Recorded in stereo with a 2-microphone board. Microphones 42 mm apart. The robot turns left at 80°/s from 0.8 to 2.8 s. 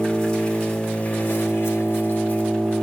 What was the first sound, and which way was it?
An engine running, 165° left.